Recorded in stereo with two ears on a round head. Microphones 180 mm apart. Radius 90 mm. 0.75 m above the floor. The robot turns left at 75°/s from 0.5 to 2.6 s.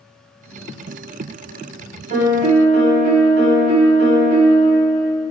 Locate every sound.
2.1 s a piano: 45° right, 0.8 m; by 5.2 s 85° right, 0.8 m